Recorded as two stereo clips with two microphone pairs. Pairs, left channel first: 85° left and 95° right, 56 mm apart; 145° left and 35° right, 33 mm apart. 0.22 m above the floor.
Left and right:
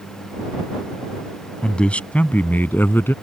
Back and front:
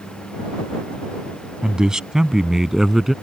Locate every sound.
1.6 s a man speaking: 20° left; by 3.1 s 45° left